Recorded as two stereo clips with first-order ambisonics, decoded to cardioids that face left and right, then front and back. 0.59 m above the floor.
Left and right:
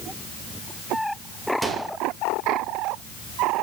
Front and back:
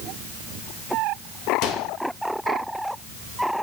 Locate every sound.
1.6 s a microwave: 15° right, 1.8 m